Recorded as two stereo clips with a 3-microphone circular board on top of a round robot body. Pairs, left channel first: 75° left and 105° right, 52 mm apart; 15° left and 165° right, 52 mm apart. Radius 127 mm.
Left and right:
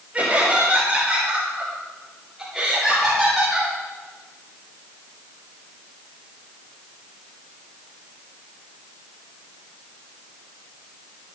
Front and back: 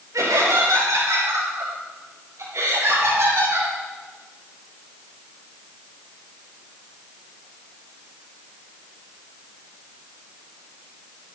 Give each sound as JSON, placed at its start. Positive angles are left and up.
{"t": 0.1, "sound": "laughter", "azimuth_deg": -175, "distance_m": 8.0}